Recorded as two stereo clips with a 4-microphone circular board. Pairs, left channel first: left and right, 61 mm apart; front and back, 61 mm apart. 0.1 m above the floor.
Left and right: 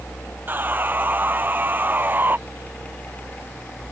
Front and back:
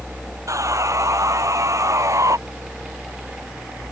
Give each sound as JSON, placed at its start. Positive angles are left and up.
{"t": 0.5, "sound": "sawing", "azimuth_deg": -145}